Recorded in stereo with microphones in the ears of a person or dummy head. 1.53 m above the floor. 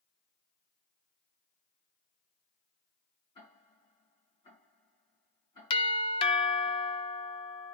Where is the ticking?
30° left (ahead or behind), 5 m.